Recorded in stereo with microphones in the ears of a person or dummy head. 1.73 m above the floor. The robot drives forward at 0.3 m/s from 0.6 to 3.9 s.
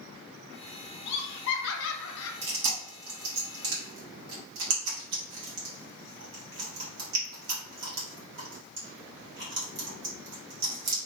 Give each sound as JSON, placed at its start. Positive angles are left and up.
{"t": 1.1, "sound": "laughter", "side_deg": 55, "distance_m": 0.9}
{"t": 2.4, "sound": "chewing", "side_deg": -65, "distance_m": 1.7}